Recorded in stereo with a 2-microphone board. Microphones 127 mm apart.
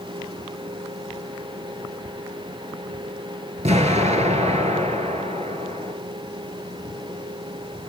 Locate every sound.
3.6 s an explosion: 65° right (ahead or behind), 1.1 m